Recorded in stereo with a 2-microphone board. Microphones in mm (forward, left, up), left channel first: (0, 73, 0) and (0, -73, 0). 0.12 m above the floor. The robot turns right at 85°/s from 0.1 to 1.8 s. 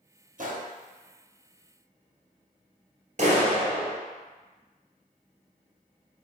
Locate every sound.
0.4 s a gunshot: 65° right (ahead or behind), 1.1 m; by 0.7 s 45° right (ahead or behind), 1.1 m
3.2 s a clap: 50° right (ahead or behind), 1.6 m